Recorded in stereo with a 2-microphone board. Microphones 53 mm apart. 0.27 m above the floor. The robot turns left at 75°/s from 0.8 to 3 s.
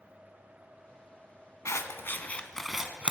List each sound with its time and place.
1.6 s scissors: 70° left (ahead or behind), 0.7 m; by 3.1 s 20° right (ahead or behind), 0.7 m